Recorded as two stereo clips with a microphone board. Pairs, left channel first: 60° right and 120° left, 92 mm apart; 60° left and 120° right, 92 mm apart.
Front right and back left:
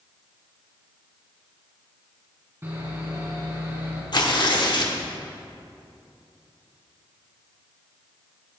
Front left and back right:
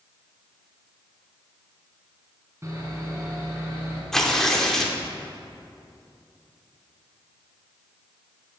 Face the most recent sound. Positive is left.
turn(degrees=-25)